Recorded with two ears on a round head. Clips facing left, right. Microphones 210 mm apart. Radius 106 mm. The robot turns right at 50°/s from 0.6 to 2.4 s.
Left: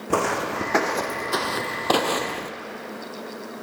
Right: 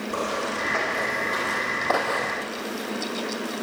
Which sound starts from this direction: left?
Footsteps, at 0.1 s.